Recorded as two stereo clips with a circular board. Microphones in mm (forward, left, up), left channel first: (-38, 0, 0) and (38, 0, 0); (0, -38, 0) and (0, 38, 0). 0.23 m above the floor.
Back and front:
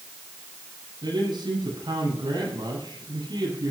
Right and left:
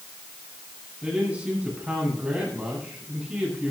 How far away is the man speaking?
About 9.5 m.